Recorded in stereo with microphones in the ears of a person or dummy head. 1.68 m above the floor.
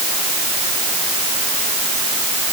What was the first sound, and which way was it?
Only background noise.